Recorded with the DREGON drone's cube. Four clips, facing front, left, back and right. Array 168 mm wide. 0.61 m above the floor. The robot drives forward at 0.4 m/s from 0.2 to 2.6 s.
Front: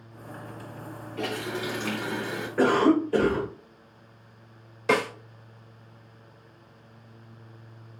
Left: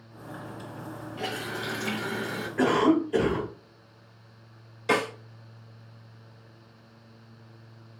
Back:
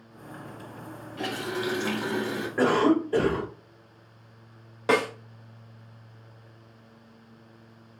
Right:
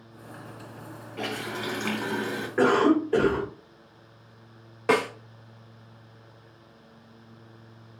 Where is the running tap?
110° right, 3 m; by 2.5 s 120° right, 3.5 m.